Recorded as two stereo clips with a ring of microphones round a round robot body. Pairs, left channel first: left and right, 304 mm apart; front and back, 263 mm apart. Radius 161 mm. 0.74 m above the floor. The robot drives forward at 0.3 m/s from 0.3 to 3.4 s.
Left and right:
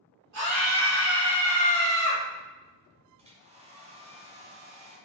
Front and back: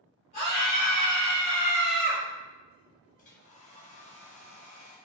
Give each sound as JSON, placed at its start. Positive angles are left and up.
{"t": 0.3, "sound": "a scream", "azimuth_deg": -65, "distance_m": 1.8}
{"t": 3.2, "sound": "a hair dryer", "azimuth_deg": -35, "distance_m": 1.0}